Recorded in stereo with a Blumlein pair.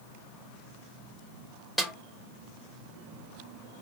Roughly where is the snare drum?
Ahead.